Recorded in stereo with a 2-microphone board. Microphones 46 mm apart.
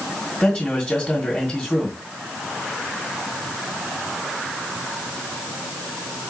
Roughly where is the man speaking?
Left.